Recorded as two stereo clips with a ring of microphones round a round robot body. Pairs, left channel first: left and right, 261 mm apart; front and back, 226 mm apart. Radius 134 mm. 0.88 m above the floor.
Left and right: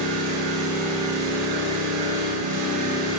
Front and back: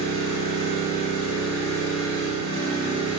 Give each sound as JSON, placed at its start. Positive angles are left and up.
{"t": 0.0, "sound": "an engine running", "azimuth_deg": -75, "distance_m": 7.5}